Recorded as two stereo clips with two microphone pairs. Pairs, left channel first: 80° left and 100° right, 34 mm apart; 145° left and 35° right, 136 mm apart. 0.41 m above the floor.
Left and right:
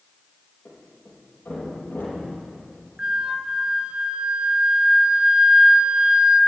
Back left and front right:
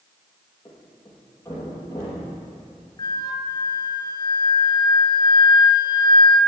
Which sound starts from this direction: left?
A thud, at 0.7 s.